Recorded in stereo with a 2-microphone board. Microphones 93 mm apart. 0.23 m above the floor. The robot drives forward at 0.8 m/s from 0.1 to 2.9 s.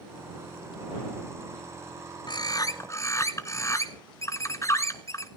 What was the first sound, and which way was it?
A bird, 55° left (ahead or behind).